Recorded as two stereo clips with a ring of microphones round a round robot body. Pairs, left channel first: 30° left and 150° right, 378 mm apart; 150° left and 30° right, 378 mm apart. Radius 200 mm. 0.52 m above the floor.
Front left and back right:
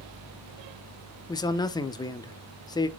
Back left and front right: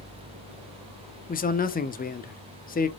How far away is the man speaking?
About 0.7 m.